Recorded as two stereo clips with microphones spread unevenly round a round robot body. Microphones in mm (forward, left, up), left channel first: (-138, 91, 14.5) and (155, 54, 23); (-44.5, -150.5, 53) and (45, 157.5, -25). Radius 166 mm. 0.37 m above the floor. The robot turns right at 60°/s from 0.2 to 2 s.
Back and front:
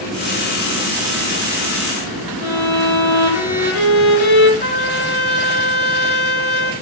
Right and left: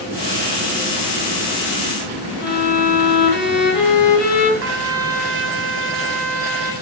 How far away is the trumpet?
About 6.5 m.